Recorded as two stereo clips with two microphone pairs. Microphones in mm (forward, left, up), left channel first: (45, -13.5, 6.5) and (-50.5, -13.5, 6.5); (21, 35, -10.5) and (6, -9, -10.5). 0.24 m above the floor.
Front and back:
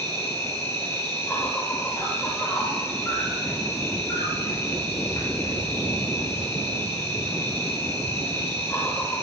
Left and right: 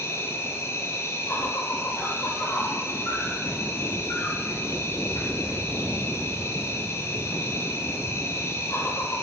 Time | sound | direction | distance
0.0 | an insect | 60° left | 1.8 m